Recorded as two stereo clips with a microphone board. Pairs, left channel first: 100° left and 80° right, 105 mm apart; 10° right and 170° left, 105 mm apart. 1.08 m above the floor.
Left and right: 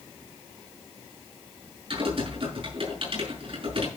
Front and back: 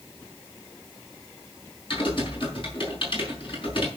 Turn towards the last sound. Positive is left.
turn(degrees=-50)